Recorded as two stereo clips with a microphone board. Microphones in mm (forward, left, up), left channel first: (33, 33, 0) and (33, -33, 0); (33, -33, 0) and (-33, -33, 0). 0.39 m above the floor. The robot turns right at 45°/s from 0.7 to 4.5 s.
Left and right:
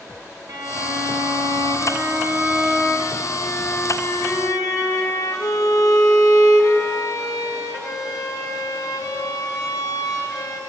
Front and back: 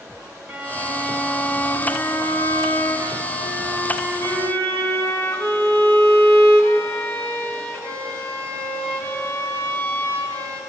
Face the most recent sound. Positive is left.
turn(degrees=65)